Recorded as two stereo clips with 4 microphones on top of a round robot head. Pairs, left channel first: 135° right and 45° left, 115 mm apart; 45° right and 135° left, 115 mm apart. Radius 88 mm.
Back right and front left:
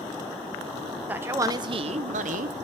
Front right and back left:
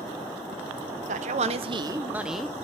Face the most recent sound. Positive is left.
turn(degrees=40)